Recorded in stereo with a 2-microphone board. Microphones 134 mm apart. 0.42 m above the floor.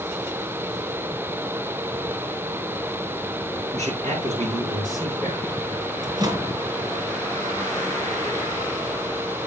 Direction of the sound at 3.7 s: 65° right (ahead or behind).